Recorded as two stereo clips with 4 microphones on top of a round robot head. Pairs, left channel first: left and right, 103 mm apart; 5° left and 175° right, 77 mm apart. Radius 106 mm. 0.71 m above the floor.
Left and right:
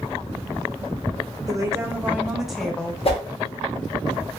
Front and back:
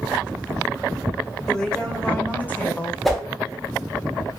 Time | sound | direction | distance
1.5 | a woman speaking | 75° right | 1.1 m
3.0 | a whoosh | 90° left | 1.2 m